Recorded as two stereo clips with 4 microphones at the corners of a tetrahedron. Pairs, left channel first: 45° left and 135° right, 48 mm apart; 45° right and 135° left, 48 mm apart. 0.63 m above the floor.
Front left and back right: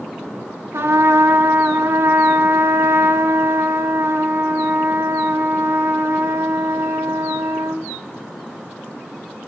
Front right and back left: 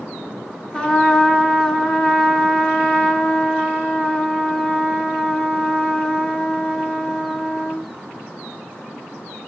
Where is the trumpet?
120° right, 1.6 m.